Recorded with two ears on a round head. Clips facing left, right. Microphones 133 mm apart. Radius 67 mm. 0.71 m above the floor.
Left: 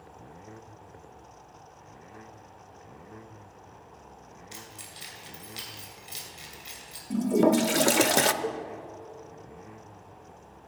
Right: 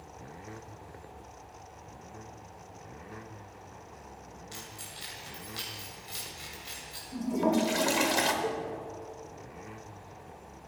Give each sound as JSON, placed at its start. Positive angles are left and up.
{"t": 4.5, "sound": "keys jangling", "side_deg": 20, "distance_m": 2.5}
{"t": 7.1, "sound": "a toilet flushing", "side_deg": 60, "distance_m": 0.5}
{"t": 8.4, "sound": "a cowbell", "side_deg": 15, "distance_m": 0.8}